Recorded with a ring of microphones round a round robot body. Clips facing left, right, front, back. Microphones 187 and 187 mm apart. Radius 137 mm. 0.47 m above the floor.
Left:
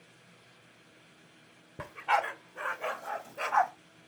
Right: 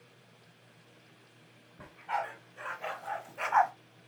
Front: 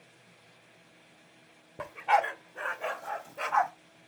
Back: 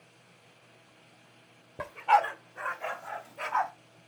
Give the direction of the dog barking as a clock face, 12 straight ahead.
9 o'clock.